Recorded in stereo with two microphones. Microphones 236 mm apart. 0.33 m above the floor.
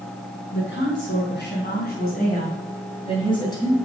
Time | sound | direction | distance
0.5 | a woman speaking | 60° left (ahead or behind) | 3.5 m